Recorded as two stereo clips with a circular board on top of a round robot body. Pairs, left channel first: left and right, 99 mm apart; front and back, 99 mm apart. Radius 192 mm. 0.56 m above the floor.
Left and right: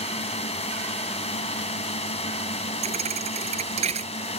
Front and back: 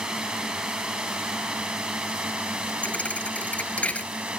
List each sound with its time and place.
0.0 s a drone: 95° left; by 4.4 s 100° left
2.8 s a thud: 75° right